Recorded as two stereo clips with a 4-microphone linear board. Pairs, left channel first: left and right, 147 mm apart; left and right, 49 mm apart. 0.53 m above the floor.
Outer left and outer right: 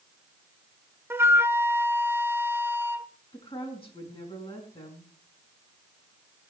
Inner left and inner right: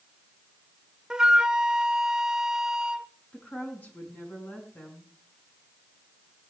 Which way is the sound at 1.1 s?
15° right (ahead or behind).